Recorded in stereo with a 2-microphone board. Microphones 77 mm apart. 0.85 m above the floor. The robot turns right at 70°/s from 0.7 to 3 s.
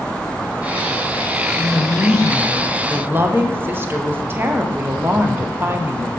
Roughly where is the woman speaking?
Behind left.